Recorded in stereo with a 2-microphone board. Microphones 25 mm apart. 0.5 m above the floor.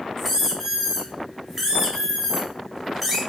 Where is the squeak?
10° right (ahead or behind), 1.0 m.